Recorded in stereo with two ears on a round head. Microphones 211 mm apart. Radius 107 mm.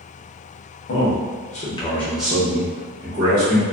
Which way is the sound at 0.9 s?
50° left (ahead or behind).